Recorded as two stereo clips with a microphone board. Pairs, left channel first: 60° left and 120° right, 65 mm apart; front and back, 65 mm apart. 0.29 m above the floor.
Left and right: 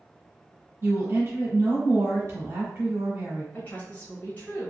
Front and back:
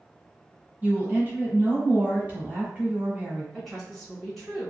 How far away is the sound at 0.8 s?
About 1.2 m.